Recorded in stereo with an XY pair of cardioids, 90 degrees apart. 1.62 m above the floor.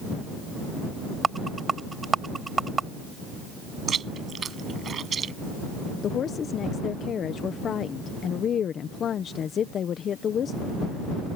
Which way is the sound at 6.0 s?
65° left.